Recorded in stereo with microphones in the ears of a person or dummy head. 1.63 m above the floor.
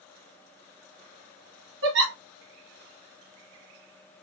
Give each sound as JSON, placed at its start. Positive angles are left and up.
{"t": 1.8, "sound": "a giggle", "side_deg": -60, "distance_m": 1.5}